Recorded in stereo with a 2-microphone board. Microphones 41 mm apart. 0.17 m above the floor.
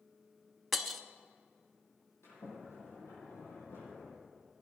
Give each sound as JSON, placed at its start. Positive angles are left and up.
{"t": 0.7, "sound": "breaking glass", "side_deg": 0, "distance_m": 0.8}
{"t": 2.2, "sound": "a sliding door", "side_deg": 80, "distance_m": 7.0}